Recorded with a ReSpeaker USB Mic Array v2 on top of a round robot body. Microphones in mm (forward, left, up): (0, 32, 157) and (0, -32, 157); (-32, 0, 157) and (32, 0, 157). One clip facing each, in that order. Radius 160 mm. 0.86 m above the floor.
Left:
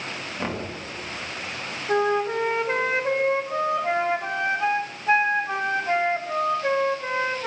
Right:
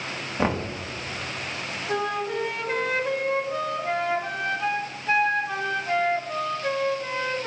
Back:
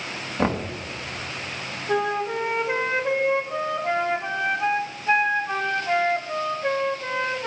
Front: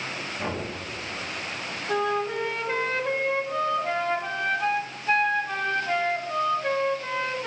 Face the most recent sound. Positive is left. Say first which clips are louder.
# left 5 dB, back 2 dB
turn(degrees=125)